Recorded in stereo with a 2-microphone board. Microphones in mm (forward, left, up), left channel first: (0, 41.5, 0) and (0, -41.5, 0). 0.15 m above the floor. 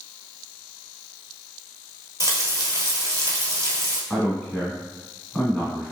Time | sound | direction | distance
2.2 | frying | 40° right (ahead or behind) | 0.9 m
4.1 | a man speaking | 10° left (ahead or behind) | 1.0 m